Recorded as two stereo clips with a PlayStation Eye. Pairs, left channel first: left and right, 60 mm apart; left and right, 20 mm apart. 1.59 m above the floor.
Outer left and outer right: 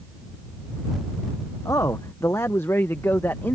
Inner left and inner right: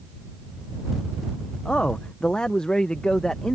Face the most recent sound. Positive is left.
turn(degrees=40)  # may be behind; listen again after turning